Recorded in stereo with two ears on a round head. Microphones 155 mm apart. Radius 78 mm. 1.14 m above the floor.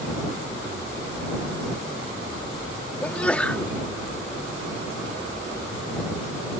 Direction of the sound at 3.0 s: 5° left (ahead or behind).